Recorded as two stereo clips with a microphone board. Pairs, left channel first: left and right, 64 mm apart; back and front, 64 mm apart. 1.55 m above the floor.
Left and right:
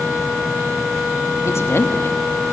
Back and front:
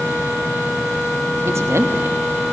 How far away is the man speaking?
About 2.5 m.